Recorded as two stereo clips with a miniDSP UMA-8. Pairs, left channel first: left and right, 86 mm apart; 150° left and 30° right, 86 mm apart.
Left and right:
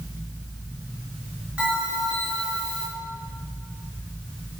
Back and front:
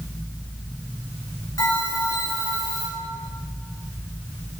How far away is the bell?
About 4 m.